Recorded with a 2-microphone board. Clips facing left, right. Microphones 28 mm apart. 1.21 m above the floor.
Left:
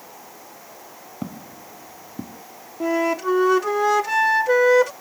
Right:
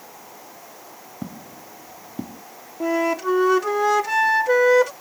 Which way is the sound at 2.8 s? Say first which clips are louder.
Even; 5° left (ahead or behind).